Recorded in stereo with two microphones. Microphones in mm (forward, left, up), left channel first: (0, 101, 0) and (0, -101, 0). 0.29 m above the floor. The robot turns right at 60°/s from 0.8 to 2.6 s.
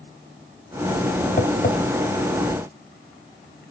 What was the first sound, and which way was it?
Tapping, 40° left (ahead or behind).